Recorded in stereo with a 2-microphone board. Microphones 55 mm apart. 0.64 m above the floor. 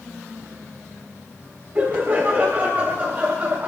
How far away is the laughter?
About 3 m.